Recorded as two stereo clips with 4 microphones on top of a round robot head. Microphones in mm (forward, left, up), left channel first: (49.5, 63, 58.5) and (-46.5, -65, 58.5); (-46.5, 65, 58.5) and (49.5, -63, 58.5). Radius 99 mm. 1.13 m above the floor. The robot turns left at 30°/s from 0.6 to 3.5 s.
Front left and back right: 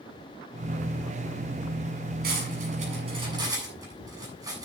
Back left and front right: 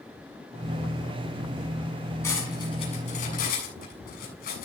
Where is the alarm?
I don't hear an alarm.